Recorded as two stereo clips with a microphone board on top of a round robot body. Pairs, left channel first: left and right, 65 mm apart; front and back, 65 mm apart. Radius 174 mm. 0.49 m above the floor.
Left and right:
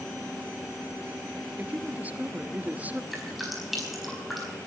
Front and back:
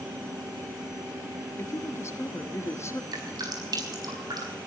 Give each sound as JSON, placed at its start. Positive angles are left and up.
{"t": 1.6, "sound": "a woman speaking", "azimuth_deg": -30, "distance_m": 1.6}
{"t": 3.1, "sound": "dripping", "azimuth_deg": 180, "distance_m": 4.5}